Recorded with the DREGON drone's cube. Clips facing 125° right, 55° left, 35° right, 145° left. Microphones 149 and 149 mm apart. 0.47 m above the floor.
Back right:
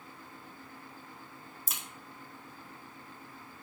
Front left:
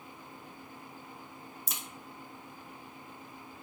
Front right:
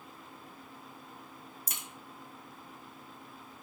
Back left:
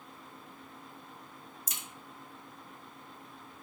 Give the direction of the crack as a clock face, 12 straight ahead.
1 o'clock.